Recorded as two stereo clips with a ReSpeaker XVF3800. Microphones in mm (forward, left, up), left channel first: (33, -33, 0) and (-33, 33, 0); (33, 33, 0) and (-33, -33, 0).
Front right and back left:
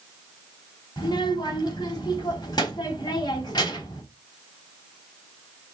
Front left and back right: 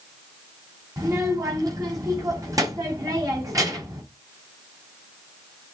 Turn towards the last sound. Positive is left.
turn(degrees=-85)